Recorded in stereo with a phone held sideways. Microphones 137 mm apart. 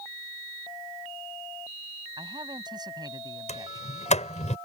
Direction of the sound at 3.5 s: 55° left (ahead or behind).